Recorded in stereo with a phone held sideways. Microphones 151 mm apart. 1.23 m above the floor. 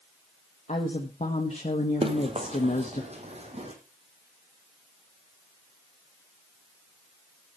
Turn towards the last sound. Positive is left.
turn(degrees=-45)  # may be behind; listen again after turning